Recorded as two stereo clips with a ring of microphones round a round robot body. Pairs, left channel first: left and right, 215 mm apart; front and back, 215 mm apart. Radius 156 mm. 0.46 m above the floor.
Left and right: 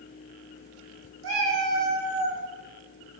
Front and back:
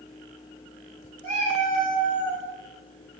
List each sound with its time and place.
1.2 s a cat meowing: 85° right, 0.7 m